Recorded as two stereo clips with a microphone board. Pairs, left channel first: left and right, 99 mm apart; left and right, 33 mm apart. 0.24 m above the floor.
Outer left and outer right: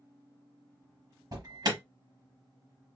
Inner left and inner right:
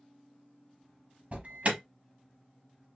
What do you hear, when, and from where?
1.3 s an alarm: 40° right (ahead or behind), 1.0 m